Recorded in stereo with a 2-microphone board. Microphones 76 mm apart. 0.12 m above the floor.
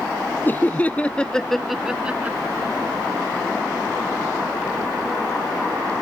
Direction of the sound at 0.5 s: 25° left (ahead or behind).